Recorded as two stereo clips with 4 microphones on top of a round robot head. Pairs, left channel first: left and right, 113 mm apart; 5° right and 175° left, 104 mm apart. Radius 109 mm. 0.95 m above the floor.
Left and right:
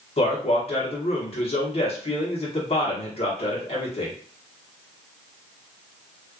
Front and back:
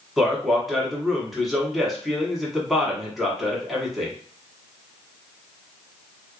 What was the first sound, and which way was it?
A man speaking, 85° left.